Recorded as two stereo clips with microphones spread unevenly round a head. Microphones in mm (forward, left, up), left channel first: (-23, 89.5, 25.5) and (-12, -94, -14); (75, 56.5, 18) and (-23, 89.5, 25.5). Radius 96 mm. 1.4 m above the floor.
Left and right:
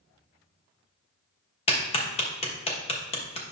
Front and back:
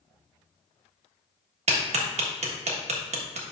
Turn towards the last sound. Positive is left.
turn(degrees=150)